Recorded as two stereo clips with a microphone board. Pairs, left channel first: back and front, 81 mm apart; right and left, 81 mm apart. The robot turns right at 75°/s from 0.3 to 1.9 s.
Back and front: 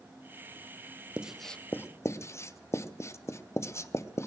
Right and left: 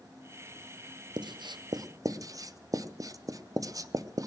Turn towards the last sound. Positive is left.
turn(degrees=130)